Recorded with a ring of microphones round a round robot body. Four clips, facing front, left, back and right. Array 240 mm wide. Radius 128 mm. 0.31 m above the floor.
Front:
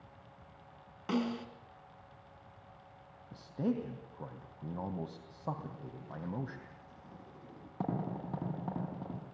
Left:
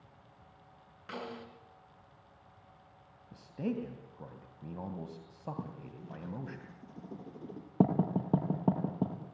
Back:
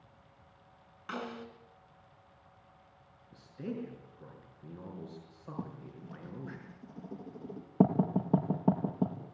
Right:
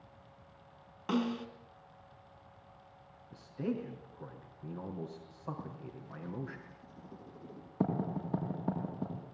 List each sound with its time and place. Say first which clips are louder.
1.1 s a snare drum: right 9 dB, front 6 dB; 50° right, 3 m
3.3 s a man speaking: left 1 dB, front 6 dB; 30° left, 2.5 m
5.6 s writing: left 2 dB, back 3 dB; 130° left, 5.5 m